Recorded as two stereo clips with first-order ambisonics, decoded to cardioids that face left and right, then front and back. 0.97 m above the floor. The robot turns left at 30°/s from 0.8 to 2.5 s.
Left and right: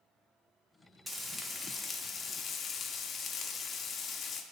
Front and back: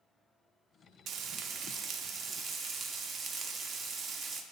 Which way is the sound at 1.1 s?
175° right.